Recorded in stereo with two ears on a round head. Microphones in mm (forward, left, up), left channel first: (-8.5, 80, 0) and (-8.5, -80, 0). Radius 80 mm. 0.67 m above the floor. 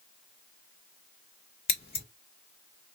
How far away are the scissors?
About 1.4 m.